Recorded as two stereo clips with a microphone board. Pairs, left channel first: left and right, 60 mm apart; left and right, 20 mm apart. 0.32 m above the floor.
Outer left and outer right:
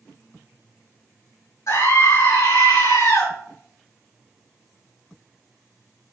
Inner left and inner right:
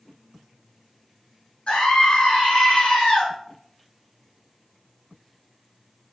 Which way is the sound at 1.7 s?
65° left (ahead or behind).